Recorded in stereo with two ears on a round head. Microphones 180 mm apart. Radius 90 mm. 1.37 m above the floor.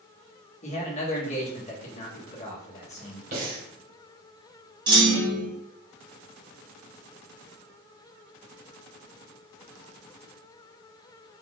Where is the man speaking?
35° left (ahead or behind), 1.3 m.